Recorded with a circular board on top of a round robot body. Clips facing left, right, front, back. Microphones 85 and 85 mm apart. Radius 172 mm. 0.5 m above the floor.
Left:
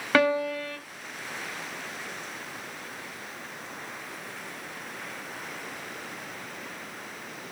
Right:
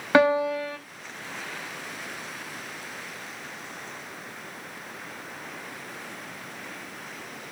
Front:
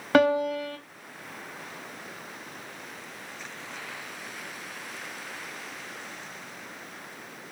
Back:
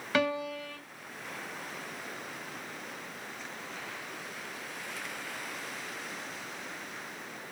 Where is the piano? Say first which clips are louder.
Right 3 dB, front 9 dB; 20° right, 1.6 m.